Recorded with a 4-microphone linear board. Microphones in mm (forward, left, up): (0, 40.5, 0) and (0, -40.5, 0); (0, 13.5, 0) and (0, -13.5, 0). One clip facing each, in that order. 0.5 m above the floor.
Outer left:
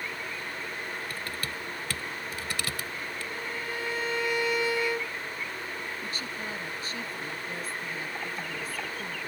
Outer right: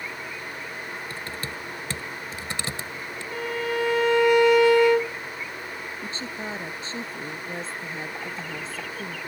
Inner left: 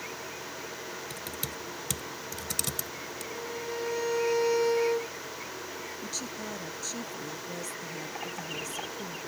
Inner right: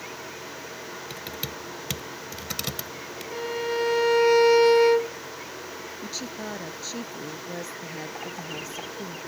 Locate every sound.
1.1 s typing on a keyboard: 30° right (ahead or behind)
3.3 s a violin: 80° right
6.0 s a woman speaking: 30° right (ahead or behind)